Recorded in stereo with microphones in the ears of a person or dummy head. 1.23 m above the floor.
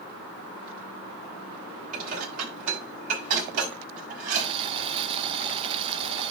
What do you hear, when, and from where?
1.9 s dishes clattering: 45° right (ahead or behind), 5.5 m
4.4 s boiling: 30° right (ahead or behind), 0.7 m